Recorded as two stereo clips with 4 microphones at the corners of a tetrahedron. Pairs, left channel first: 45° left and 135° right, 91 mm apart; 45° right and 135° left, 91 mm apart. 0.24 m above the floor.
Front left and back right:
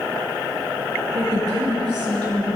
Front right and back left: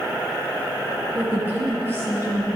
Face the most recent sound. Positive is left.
turn(degrees=-170)